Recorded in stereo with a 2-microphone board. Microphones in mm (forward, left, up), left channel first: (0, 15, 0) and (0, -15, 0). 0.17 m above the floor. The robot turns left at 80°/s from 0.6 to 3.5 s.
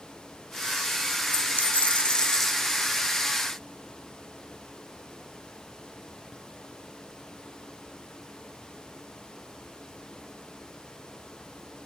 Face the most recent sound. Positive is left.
turn(degrees=-75)